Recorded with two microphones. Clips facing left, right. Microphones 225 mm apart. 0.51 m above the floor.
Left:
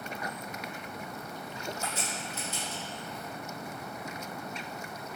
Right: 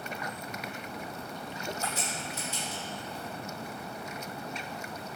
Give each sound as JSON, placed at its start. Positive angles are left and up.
{"t": 1.8, "sound": "a crack", "side_deg": 35, "distance_m": 1.6}